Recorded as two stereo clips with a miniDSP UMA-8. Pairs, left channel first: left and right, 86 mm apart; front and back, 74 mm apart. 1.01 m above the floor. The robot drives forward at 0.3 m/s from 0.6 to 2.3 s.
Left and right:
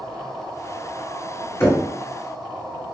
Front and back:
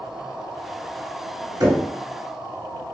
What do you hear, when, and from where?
1.6 s knocking: 155° left, 1.9 m